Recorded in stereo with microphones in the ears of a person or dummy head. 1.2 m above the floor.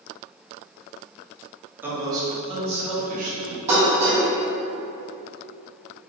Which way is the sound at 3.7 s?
40° right (ahead or behind).